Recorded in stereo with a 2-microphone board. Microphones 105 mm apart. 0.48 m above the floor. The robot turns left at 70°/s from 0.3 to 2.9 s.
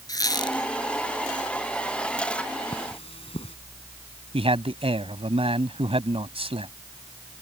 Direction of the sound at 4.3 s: 70° right (ahead or behind).